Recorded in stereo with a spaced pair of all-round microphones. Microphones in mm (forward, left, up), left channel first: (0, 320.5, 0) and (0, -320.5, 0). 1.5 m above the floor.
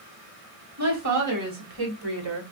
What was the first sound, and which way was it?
A woman speaking, 25° right (ahead or behind).